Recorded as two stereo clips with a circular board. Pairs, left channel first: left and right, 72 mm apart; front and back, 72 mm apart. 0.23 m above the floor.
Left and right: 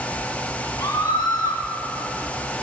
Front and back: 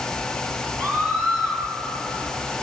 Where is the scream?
75° left, 4.5 m.